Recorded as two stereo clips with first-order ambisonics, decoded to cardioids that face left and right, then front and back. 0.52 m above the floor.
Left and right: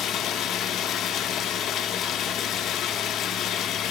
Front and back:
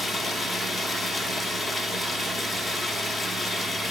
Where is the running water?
90° left, 0.7 m.